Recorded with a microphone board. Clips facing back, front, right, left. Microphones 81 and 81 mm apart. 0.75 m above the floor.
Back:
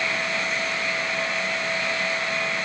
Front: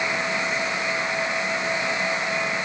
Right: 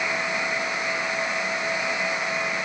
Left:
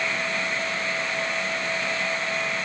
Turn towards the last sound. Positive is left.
No sound to turn to.